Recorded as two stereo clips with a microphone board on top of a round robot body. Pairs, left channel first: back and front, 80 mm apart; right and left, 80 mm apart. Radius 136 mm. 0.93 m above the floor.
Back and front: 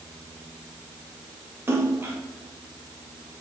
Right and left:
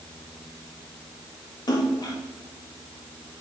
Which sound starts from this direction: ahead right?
A splash, at 1.7 s.